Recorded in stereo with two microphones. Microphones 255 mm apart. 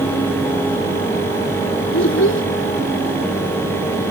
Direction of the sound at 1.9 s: 60° left (ahead or behind).